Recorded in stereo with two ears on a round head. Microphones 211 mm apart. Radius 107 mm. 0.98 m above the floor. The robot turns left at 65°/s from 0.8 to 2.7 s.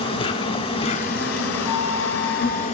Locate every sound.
0.0 s an insect: 155° left, 2.5 m; by 2.8 s 35° left, 2.5 m
1.6 s a flute: 160° left, 5.5 m; by 2.7 s 95° left, 5.5 m